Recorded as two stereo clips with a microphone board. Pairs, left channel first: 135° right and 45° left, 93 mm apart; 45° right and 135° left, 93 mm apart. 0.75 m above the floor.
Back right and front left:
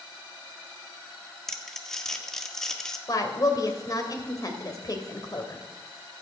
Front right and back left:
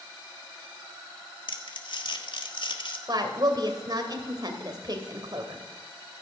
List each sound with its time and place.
1.5 s crumpling: 50° right, 1.5 m
3.1 s a woman speaking: 175° left, 2.5 m